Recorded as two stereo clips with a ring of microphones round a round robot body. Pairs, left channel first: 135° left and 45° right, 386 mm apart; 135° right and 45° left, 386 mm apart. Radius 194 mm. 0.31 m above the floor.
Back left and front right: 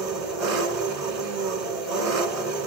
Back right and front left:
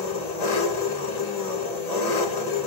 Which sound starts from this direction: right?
An engine running, at 0.0 s.